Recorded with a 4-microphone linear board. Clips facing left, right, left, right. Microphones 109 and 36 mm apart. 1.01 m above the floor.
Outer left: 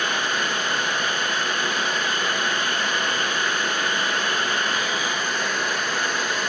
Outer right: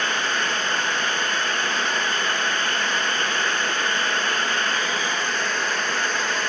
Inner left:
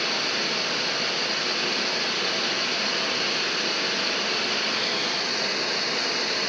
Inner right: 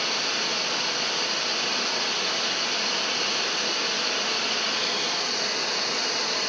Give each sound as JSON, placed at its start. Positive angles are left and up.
{"t": 0.0, "sound": "running water", "side_deg": 10, "distance_m": 1.8}